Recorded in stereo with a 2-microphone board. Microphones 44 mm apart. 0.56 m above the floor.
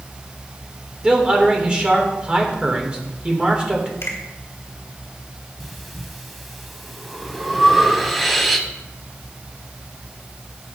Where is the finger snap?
70° left (ahead or behind), 3.5 m.